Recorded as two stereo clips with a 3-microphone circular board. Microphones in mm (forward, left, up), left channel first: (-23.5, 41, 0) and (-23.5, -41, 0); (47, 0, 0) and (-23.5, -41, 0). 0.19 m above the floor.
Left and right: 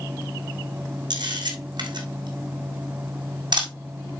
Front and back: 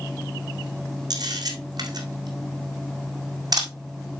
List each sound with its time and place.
1.1 s a camera shutter: 115° right, 1.8 m